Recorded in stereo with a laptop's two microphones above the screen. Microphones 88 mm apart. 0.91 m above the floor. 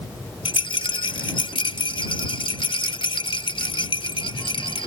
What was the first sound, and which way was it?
A rattle, 80° left.